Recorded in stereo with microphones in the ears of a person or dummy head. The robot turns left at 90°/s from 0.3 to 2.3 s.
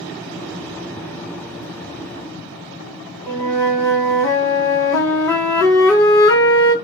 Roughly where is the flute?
Centre.